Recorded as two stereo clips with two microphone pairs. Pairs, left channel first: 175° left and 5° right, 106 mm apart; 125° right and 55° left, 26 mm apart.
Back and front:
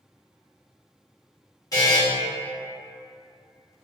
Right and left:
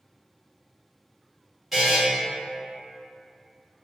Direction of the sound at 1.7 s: 140° left.